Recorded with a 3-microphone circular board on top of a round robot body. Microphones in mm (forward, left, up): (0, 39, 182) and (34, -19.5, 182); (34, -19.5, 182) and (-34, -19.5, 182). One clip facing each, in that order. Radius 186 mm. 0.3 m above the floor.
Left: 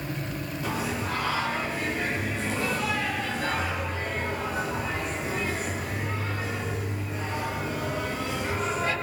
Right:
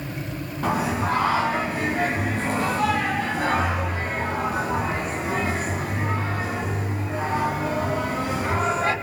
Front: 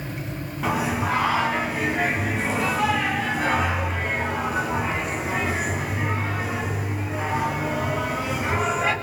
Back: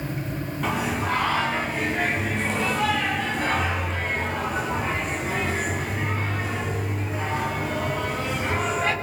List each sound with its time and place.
0.6 s singing: 85° right, 4.5 m